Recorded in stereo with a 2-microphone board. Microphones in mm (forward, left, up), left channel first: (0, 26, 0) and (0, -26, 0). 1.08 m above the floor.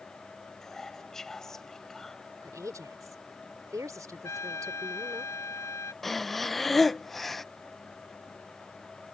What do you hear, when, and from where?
0.6 s whispering: 5° left (ahead or behind)
2.4 s a woman speaking: 85° right
4.2 s a trumpet: 60° left (ahead or behind)
6.0 s breathing: 5° left (ahead or behind)